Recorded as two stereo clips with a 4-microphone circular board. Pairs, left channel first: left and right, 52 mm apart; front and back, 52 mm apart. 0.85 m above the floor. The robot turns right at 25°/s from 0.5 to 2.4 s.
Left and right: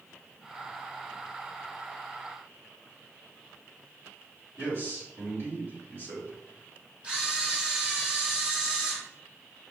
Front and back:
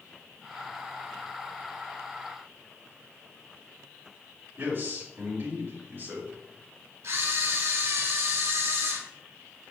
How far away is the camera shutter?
About 2 m.